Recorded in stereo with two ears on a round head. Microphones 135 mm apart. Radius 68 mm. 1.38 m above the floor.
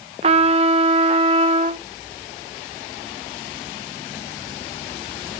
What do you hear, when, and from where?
0.2 s a trumpet: 40° right (ahead or behind), 0.7 m